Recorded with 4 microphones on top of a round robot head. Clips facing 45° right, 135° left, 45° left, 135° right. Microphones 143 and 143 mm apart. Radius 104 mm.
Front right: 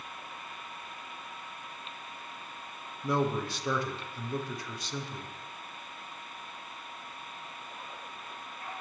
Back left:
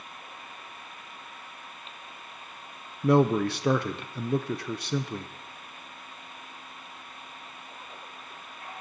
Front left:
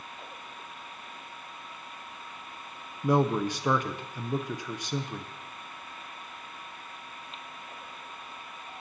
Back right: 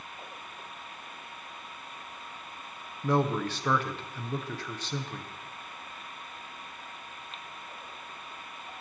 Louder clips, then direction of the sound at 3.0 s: Back left 8 dB, front left 2 dB; 120° left.